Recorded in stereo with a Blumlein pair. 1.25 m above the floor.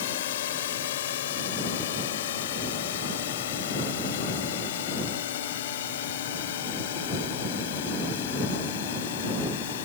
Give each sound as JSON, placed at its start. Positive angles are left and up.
{"t": 0.0, "sound": "a drone", "azimuth_deg": 55}